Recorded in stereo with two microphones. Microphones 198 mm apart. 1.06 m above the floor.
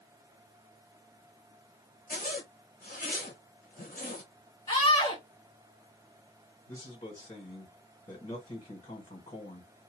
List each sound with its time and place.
2.1 s a zipper: 45° left (ahead or behind), 1.2 m
4.7 s a scream: 25° left (ahead or behind), 1.7 m
6.7 s a man speaking: 30° left (ahead or behind), 1.7 m